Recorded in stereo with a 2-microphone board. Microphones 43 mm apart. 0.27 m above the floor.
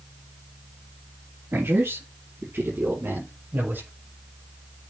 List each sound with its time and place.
1.5 s a man speaking: 65° right (ahead or behind), 5.5 m; by 3.9 s 50° right (ahead or behind), 6.5 m